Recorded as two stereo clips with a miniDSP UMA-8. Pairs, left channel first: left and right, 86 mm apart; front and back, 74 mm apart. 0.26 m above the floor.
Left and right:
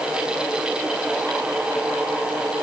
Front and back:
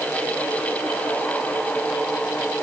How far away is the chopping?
I don't hear chopping.